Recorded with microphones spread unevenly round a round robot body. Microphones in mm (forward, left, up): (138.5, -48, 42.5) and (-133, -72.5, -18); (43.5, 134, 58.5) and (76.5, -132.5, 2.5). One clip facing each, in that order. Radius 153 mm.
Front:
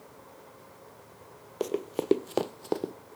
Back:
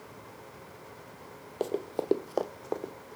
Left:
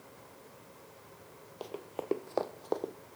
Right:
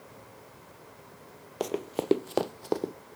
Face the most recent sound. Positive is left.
turn(degrees=-30)